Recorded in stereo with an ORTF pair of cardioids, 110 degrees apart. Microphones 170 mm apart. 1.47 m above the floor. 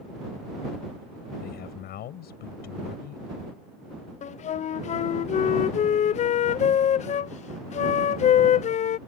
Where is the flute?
45° left.